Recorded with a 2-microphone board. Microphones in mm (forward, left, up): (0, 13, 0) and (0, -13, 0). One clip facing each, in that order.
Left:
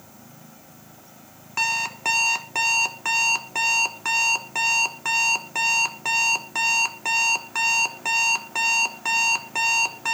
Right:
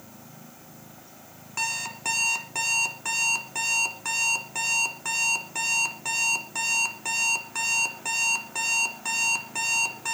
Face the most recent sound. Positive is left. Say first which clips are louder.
# left 6 dB
turn(degrees=20)  # may be behind; listen again after turning